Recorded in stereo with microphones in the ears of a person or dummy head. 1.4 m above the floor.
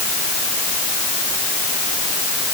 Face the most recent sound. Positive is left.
No sound to turn to.